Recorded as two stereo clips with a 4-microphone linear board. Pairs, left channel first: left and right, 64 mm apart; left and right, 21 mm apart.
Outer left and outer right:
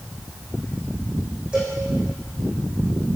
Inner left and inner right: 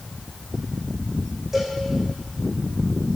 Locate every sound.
1.5 s a cowbell: 15° right (ahead or behind), 6 m